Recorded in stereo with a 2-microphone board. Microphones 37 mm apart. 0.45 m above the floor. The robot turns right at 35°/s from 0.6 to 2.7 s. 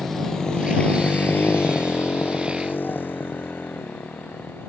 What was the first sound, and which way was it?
A motorcycle, 5° left (ahead or behind).